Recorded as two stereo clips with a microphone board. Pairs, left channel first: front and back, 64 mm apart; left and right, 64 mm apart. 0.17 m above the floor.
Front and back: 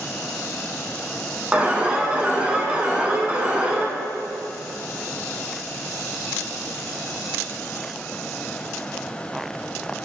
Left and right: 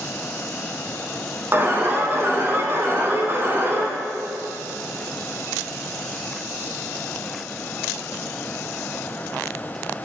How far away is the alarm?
About 0.9 m.